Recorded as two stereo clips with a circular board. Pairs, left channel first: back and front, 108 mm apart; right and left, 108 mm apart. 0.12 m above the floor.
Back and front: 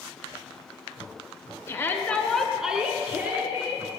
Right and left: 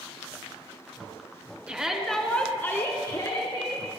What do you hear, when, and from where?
1.7 s a shout: 155° left, 1.4 m; by 3.9 s 55° right, 2 m